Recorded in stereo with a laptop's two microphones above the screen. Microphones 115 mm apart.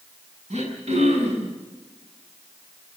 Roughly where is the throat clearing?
Right.